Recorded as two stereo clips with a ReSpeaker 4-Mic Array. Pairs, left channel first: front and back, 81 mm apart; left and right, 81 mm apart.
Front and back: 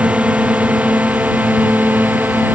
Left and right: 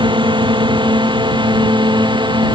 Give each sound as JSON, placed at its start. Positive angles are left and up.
{"t": 0.0, "sound": "a drone", "azimuth_deg": -105}